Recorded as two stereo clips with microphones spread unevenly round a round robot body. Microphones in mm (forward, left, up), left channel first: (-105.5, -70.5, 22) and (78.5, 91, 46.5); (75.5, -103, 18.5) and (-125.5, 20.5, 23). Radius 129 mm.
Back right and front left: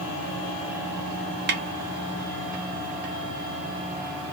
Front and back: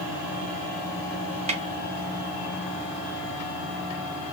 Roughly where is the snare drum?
Left.